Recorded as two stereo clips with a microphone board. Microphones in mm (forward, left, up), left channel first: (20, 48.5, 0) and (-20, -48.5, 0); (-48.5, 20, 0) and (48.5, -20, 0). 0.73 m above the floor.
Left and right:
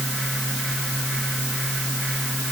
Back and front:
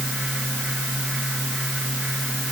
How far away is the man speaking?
No man speaking in this recording.